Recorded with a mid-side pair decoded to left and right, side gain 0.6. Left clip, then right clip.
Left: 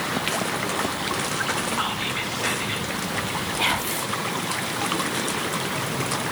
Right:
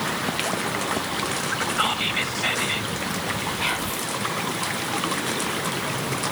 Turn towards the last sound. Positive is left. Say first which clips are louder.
# left 2 dB
turn(degrees=60)